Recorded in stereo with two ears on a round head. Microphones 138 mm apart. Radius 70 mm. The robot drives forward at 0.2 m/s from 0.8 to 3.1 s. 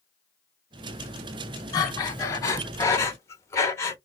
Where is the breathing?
25° left (ahead or behind), 0.7 m; by 4.0 s 20° left (ahead or behind), 0.9 m.